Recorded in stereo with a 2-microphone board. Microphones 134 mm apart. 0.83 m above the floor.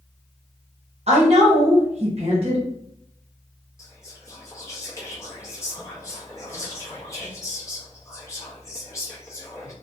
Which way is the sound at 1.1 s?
55° right (ahead or behind).